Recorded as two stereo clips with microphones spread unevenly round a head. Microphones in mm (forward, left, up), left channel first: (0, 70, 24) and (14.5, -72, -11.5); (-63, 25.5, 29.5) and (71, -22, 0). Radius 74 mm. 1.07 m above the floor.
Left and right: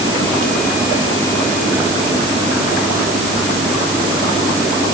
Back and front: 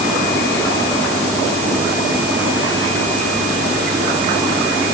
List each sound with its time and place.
Only background noise.